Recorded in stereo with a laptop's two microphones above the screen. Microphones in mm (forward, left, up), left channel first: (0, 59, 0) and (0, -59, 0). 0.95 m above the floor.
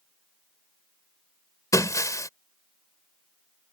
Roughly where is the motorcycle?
No motorcycle in this recording.